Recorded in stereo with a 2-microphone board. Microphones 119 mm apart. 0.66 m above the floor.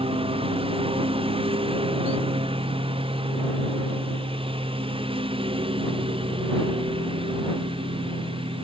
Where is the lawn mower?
50° right (ahead or behind).